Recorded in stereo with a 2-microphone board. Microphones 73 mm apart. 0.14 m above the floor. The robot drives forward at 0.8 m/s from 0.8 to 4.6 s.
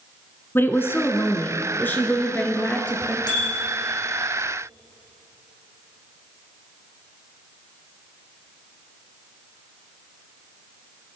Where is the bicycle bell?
80° left, 5 m.